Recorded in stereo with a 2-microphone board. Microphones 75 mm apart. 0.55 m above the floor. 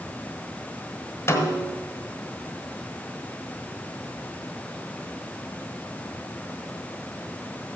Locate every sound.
1.3 s a snare drum: 40° left (ahead or behind), 1.4 m